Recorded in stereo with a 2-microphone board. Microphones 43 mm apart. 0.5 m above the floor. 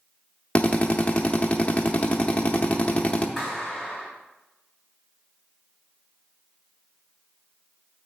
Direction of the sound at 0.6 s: 30° left (ahead or behind).